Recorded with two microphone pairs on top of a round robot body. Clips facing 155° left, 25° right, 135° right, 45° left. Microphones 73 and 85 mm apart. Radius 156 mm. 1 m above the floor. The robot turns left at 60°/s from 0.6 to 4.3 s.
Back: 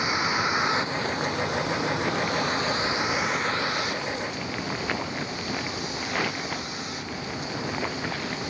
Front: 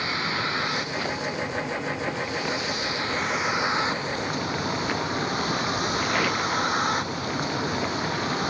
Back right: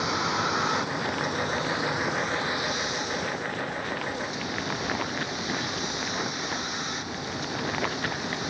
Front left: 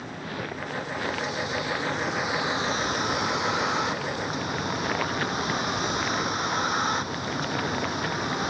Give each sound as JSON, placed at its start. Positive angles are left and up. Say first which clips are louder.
{"t": 0.0, "sound": "a vehicle", "louder": "back 2 dB, back right 8 dB", "azimuth_deg": -130}